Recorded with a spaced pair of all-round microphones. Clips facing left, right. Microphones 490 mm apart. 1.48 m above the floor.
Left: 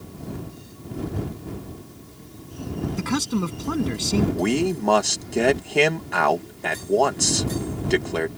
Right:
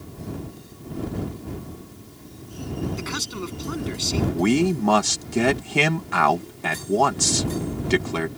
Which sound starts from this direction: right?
A man speaking, at 4.3 s.